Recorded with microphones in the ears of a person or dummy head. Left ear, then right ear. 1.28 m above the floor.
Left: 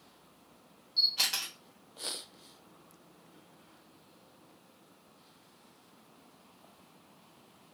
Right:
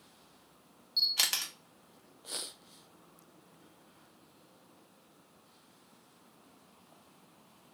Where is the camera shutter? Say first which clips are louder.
Left 1 dB; 35° right (ahead or behind), 0.6 m.